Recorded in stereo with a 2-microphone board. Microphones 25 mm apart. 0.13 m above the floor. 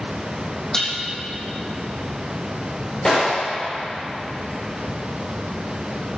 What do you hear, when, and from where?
0.7 s dishes clattering: 30° left (ahead or behind), 4 m
3.0 s a gunshot: 20° left (ahead or behind), 6 m